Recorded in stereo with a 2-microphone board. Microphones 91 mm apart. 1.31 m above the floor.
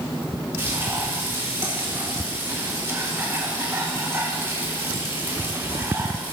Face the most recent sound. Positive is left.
turn(degrees=-30)  # may be behind; listen again after turning